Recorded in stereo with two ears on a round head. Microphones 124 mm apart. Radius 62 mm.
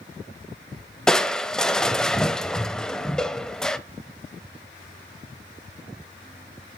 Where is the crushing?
5° left (ahead or behind), 0.6 m.